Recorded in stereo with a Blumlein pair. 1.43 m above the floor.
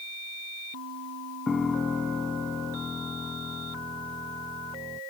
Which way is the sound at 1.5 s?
15° left.